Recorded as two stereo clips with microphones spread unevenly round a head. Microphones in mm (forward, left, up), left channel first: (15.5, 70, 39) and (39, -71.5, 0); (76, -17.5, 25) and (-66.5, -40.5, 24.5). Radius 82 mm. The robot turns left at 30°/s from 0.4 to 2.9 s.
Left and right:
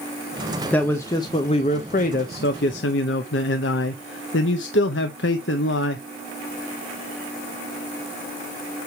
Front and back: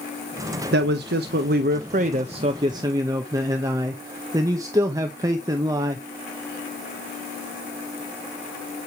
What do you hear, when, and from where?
0.7 s a man speaking: 175° right, 0.6 m; by 6.0 s 120° left, 0.6 m